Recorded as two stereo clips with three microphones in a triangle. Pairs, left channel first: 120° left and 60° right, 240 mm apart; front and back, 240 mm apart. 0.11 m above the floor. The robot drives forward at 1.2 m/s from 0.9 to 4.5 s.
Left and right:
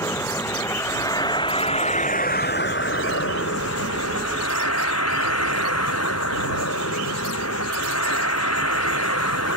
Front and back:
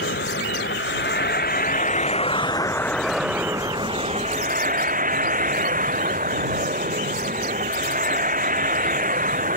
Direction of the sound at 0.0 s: 40° left.